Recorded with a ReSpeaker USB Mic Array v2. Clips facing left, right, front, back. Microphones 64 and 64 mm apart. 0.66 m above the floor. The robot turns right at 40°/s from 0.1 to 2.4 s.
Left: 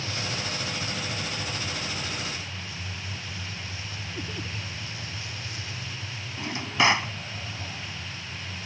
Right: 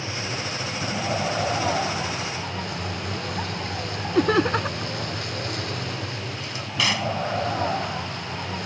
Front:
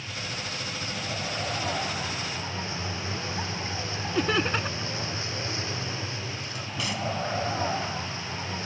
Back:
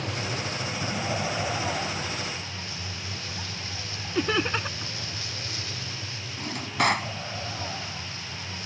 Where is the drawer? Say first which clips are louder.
Left 5 dB, back 7 dB; 150° left.